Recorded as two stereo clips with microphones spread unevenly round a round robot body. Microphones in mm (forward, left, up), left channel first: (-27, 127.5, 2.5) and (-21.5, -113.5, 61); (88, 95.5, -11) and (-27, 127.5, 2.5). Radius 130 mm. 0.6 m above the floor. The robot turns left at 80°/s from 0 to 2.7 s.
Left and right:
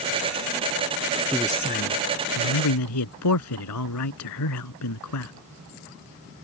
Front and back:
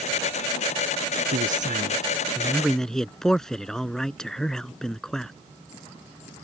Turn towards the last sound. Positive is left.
turn(degrees=70)